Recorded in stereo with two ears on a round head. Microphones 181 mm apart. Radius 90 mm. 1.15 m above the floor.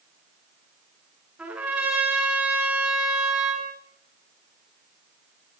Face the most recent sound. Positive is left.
turn(degrees=-5)  # may be behind; listen again after turning